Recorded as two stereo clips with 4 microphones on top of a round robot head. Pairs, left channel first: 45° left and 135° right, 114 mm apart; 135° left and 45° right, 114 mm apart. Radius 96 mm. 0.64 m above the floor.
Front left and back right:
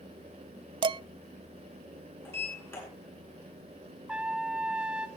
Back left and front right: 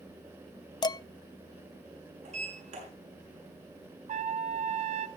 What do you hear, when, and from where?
0.8 s dishes clattering: 175° right, 0.5 m
2.2 s a sliding door: 25° right, 8 m
4.1 s a trumpet: 55° right, 0.8 m